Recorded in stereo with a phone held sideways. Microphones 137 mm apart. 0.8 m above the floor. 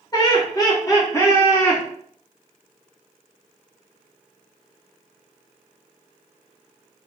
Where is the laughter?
25° left (ahead or behind), 1.1 m; by 1.8 s 10° left (ahead or behind), 1.0 m.